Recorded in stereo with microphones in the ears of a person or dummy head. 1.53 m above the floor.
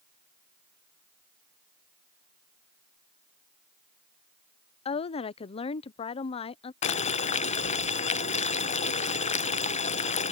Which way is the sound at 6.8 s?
35° left (ahead or behind).